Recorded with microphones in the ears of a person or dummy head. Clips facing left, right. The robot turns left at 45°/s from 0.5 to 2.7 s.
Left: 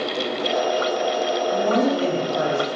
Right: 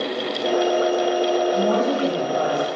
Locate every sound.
1.5 s a woman speaking: 75° left, 1.5 m; by 2.7 s 25° left, 1.5 m